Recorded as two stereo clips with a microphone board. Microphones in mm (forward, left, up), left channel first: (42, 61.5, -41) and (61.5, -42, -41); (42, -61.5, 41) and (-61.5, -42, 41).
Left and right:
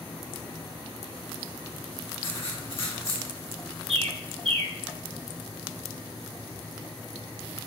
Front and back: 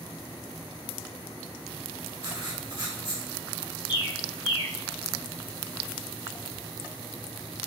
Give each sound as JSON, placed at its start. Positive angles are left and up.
{"t": 2.2, "sound": "writing", "azimuth_deg": 130, "distance_m": 1.7}
{"t": 3.9, "sound": "a bird", "azimuth_deg": -55, "distance_m": 0.8}